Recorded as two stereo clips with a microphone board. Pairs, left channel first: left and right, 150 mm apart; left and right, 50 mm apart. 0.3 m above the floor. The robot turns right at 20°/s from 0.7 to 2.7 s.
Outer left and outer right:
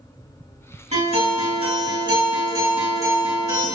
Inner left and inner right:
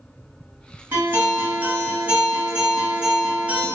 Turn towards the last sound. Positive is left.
turn(degrees=-25)